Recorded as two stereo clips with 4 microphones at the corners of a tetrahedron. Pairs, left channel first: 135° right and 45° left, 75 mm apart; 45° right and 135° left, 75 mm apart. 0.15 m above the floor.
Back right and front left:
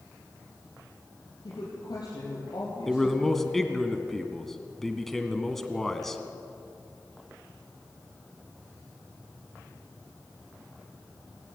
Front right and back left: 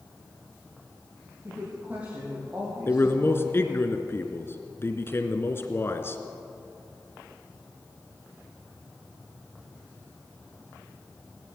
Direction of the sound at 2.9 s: 50° right.